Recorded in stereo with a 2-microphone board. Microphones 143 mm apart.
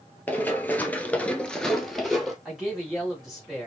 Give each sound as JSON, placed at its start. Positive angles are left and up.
{"t": 0.3, "sound": "running footsteps", "side_deg": 10, "distance_m": 1.3}
{"t": 2.5, "sound": "a man speaking", "side_deg": 0, "distance_m": 3.0}